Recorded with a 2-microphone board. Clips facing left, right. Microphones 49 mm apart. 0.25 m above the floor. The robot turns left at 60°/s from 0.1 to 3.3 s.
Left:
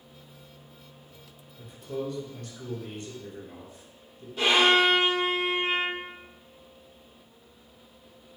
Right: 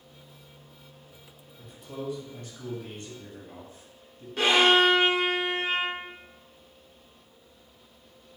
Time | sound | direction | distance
1.6 | a man speaking | 10° left | 1.1 m
4.4 | a violin | 75° right (ahead or behind) | 1.2 m